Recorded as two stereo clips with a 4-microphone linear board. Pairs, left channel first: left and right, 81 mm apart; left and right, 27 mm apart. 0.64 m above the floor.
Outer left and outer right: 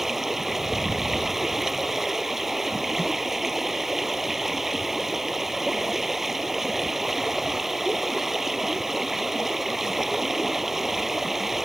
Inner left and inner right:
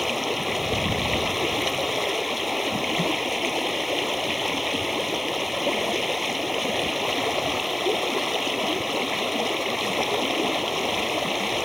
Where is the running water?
5° right (ahead or behind).